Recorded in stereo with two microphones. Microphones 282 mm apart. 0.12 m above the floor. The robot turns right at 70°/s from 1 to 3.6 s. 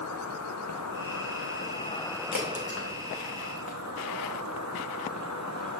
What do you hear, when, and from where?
0.0 s an insect: 95° left, 0.8 m; by 5.8 s 85° right, 0.8 m
2.3 s a crack: 85° left, 2.5 m; by 3.8 s centre (ahead or behind), 2.5 m